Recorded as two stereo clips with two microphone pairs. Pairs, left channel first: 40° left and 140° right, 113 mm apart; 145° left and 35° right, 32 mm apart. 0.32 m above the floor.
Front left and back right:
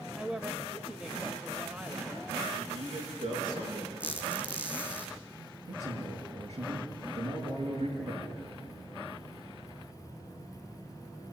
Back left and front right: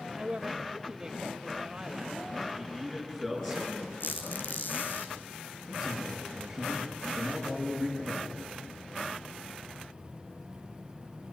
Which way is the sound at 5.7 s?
125° right.